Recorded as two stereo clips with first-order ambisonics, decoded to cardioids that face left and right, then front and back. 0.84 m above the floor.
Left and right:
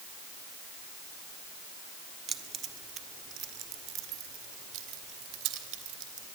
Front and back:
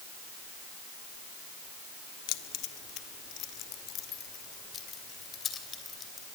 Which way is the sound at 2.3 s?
20° right.